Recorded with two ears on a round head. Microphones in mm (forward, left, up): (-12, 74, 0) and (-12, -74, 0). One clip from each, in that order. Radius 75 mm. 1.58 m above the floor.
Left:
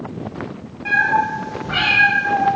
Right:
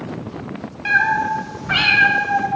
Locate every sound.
0.8 s a cat meowing: 55° right (ahead or behind), 2.5 m